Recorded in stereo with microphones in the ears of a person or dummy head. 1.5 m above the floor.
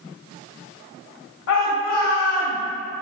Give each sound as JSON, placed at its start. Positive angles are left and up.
{"t": 1.5, "sound": "a shout", "side_deg": 70, "distance_m": 1.8}